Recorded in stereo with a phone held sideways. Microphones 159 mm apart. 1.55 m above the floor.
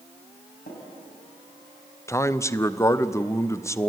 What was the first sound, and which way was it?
Tapping, 65° left (ahead or behind).